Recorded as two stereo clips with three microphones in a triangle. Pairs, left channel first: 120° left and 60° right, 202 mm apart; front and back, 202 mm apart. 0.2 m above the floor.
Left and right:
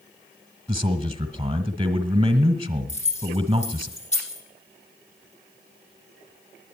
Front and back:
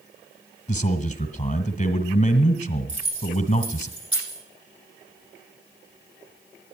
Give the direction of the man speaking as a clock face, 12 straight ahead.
1 o'clock.